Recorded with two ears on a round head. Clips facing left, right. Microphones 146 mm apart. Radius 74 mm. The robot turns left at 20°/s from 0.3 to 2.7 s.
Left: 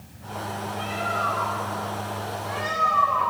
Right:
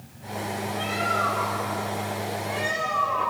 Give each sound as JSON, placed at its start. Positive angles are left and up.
{"t": 0.8, "sound": "a bird", "azimuth_deg": -115, "distance_m": 3.5}